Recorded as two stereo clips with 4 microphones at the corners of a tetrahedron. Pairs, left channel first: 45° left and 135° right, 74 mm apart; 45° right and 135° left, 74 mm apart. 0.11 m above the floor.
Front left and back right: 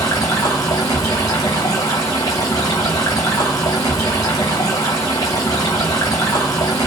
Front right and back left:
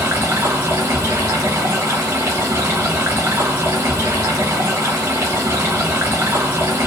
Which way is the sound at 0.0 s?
80° left.